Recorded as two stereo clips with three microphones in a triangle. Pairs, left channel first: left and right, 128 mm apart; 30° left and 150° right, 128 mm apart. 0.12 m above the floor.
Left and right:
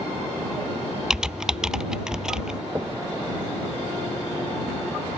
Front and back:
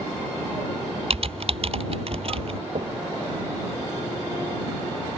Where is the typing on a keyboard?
175° right.